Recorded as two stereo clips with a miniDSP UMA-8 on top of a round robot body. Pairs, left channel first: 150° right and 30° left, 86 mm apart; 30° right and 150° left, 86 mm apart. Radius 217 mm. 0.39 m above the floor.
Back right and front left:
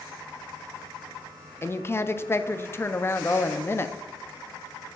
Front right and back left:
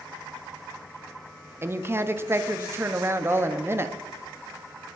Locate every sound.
1.6 s a woman speaking: straight behind, 0.8 m